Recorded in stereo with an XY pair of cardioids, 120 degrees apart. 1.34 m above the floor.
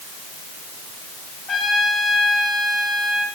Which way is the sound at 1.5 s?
45° left.